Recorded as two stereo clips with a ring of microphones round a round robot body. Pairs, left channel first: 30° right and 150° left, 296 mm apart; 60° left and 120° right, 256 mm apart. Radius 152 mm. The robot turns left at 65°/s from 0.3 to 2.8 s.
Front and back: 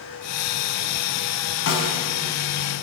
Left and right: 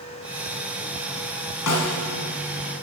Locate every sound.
1.7 s a snare drum: 20° left, 1.5 m; by 2.0 s 5° right, 1.5 m